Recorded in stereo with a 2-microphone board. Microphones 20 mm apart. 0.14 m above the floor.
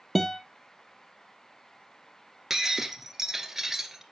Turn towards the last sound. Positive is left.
turn(degrees=-20)  # may be behind; listen again after turning